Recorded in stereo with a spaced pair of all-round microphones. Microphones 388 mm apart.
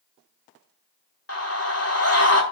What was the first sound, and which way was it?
A scream, 40° left (ahead or behind).